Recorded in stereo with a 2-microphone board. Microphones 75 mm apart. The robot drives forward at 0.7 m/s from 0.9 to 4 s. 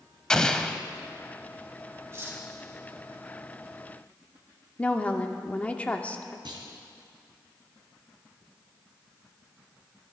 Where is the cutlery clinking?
35° right (ahead or behind), 3 m; by 2.4 s 30° right (ahead or behind), 3 m.